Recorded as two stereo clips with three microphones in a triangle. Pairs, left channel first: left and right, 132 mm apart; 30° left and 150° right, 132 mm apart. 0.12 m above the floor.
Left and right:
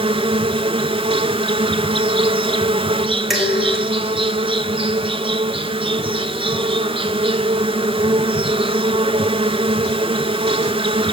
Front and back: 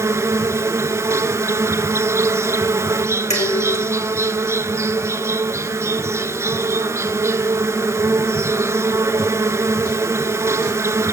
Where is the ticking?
I don't hear ticking.